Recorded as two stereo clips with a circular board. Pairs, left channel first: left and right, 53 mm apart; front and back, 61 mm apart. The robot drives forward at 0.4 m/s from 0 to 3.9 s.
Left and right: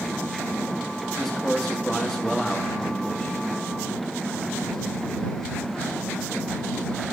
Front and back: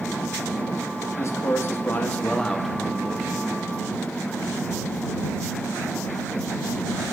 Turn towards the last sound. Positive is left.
turn(degrees=170)